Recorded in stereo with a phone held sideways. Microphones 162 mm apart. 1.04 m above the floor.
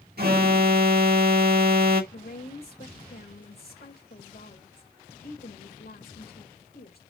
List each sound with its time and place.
0.2 s an alarm: 70° right (ahead or behind), 1.6 m
2.1 s a woman speaking: 75° left (ahead or behind), 4 m